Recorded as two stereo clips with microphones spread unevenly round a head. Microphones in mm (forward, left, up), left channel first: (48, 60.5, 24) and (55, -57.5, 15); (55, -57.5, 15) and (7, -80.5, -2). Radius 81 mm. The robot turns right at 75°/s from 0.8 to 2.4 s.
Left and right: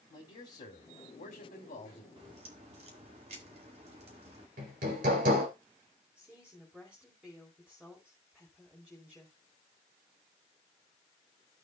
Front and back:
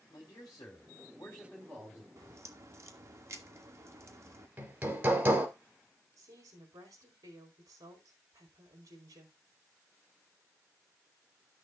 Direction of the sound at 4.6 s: 100° right.